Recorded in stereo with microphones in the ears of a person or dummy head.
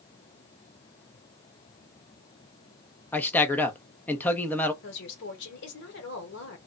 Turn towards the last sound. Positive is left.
turn(degrees=60)  # may be behind; listen again after turning